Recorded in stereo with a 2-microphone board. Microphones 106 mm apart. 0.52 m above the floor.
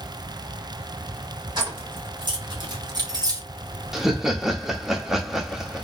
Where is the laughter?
5° right (ahead or behind), 0.8 m.